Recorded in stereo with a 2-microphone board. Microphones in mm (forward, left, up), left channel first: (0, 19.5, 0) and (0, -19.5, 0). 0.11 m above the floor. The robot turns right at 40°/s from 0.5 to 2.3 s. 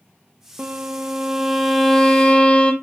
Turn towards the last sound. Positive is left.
turn(degrees=35)